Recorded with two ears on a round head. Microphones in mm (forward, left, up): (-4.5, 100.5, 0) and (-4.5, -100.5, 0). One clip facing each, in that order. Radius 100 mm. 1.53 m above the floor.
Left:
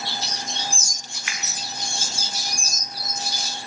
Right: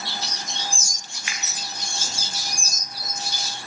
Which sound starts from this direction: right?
A finger snap, at 1.3 s.